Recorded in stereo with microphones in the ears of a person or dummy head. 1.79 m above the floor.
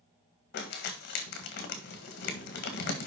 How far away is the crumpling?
About 1.7 m.